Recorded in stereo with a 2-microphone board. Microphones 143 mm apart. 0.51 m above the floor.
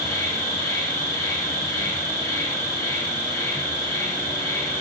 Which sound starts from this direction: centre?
An insect, at 0.0 s.